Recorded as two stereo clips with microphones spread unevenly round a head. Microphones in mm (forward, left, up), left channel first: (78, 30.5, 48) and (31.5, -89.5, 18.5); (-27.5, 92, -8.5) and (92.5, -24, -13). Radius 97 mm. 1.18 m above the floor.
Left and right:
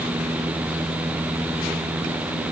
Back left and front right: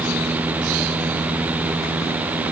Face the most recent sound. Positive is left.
No sound to turn to.